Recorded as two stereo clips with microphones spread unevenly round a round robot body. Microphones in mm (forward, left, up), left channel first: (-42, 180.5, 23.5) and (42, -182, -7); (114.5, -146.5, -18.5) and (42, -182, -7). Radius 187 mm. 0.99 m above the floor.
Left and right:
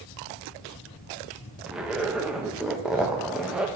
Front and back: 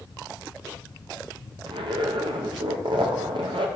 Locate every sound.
1.7 s a zipper: 160° right, 0.7 m